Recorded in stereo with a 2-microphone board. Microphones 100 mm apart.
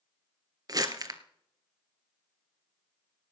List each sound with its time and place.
0.7 s crumpling: 40° right (ahead or behind), 1.0 m